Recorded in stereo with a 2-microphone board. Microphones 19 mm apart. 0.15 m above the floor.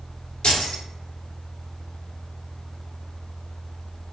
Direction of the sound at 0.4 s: 55° left (ahead or behind).